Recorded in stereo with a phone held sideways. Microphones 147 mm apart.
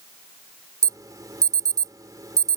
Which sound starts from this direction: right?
An alarm, at 0.8 s.